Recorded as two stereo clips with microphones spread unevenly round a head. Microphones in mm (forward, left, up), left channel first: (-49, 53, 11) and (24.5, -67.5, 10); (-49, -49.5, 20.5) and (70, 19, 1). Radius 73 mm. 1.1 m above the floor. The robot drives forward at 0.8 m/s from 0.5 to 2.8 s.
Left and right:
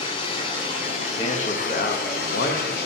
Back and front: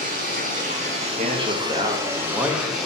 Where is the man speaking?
65° left, 1.5 m; by 2.8 s 115° left, 1.5 m.